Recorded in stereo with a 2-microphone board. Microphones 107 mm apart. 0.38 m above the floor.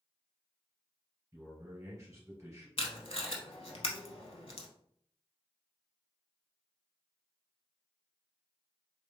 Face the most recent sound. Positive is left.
turn(degrees=65)  # may be behind; listen again after turning